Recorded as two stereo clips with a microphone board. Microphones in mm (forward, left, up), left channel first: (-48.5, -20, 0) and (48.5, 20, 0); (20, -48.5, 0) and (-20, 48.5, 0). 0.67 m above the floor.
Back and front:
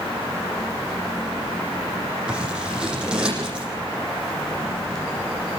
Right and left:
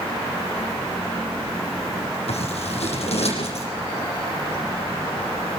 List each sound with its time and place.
2.3 s scissors: 60° right, 8 m